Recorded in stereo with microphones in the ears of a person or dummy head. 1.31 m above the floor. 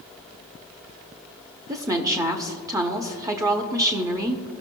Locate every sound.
1.7 s a woman speaking: 20° right (ahead or behind), 0.7 m